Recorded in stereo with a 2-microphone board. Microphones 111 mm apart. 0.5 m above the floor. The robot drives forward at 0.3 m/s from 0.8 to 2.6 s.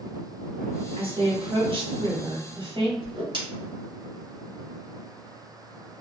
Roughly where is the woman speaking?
Right.